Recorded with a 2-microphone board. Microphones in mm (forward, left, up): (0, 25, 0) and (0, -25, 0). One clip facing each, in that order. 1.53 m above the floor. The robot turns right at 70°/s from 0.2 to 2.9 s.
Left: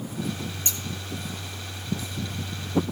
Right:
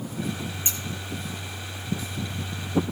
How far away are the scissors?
About 1.3 m.